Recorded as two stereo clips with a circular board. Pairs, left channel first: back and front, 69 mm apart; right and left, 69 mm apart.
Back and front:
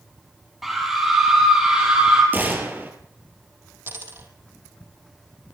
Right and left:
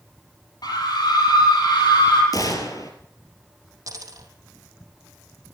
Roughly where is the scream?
Right.